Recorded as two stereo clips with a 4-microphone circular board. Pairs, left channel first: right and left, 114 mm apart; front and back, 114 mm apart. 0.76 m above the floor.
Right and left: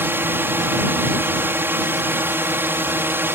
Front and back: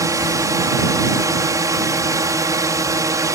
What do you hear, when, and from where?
0.0 s a drone: 145° left